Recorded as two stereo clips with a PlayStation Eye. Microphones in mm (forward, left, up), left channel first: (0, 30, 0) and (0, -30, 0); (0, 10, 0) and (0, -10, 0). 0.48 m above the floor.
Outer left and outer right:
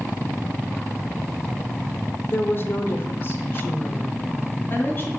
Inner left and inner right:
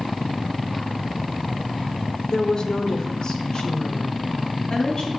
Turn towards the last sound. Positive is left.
turn(degrees=35)  # may be behind; listen again after turning